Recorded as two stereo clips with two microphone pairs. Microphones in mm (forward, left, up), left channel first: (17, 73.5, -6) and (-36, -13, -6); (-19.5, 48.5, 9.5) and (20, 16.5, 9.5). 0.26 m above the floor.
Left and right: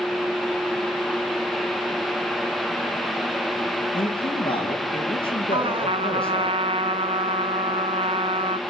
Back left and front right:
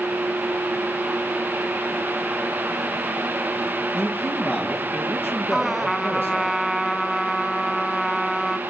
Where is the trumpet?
130° right, 1.0 m.